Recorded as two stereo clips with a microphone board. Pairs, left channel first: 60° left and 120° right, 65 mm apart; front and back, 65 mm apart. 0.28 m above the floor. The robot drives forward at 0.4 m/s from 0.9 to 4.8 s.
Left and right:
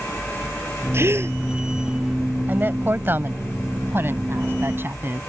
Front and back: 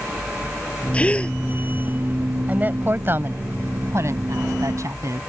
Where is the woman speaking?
140° right; by 5.2 s 165° right.